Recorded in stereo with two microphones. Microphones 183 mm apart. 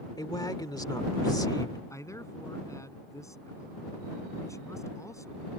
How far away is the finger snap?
I don't hear a finger snap.